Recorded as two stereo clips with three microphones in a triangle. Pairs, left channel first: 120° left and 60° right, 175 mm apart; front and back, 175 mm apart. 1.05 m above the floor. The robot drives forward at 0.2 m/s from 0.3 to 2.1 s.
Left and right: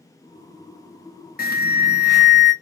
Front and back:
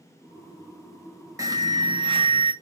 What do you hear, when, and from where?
1.4 s an alarm: 115° left, 0.7 m; by 2.5 s 125° left, 0.8 m